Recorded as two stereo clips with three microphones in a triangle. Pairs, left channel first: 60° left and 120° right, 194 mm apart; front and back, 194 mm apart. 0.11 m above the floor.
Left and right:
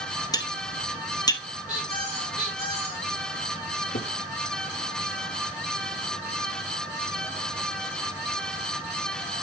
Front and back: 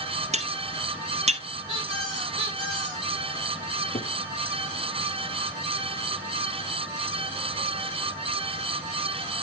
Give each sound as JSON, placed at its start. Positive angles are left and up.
{"t": 0.3, "sound": "cutlery clinking", "azimuth_deg": 130, "distance_m": 1.4}
{"t": 1.7, "sound": "a squeak", "azimuth_deg": -170, "distance_m": 9.0}
{"t": 3.9, "sound": "a cupboard door", "azimuth_deg": 45, "distance_m": 1.2}